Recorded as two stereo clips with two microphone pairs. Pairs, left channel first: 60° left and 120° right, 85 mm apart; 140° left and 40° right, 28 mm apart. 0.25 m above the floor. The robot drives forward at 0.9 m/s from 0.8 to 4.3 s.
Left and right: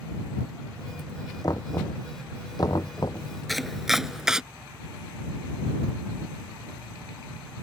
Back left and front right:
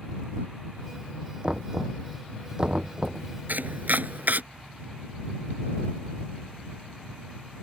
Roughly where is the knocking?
Ahead.